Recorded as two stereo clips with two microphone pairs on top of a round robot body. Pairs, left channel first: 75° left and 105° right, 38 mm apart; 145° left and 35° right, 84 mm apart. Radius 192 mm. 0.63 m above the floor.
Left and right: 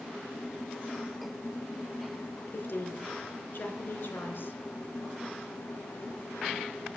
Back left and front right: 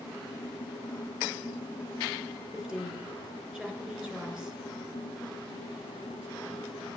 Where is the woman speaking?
45° left, 3.5 m.